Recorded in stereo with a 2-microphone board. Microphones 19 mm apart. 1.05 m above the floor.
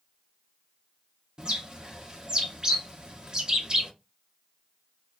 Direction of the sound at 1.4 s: 35° right (ahead or behind).